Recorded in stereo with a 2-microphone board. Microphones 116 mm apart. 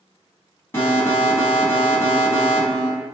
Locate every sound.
0.7 s an alarm: 20° left (ahead or behind), 1.3 m